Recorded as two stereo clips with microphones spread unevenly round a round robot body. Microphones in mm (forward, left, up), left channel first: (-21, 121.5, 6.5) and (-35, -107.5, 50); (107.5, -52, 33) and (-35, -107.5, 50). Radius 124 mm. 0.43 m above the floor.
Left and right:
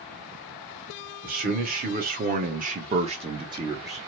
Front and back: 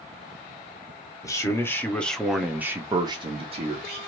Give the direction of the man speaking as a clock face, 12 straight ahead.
1 o'clock.